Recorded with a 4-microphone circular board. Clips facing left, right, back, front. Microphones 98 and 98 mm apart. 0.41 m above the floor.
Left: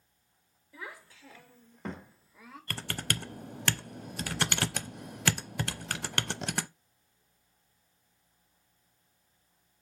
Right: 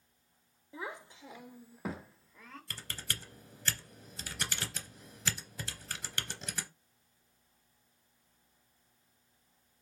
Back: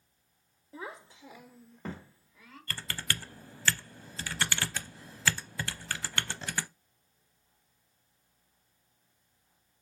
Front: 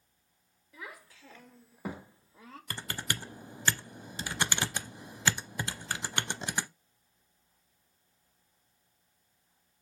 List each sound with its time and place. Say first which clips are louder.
0.7 s a child speaking: right 3 dB, back 4 dB; 145° right, 1.0 m; by 2.6 s 15° left, 1.0 m
2.7 s typing on a keyboard: left 10 dB, even; 70° left, 0.6 m